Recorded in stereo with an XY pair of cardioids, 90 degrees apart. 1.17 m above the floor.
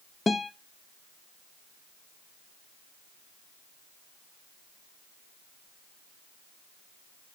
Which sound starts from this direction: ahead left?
A guitar, at 0.3 s.